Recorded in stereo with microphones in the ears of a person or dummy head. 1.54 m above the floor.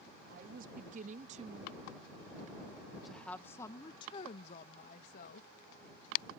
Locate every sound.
0.2 s a woman speaking: 55° right (ahead or behind); by 5.5 s 55° left (ahead or behind)